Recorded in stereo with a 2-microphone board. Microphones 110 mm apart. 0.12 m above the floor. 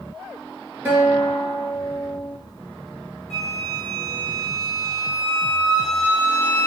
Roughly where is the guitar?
Centre.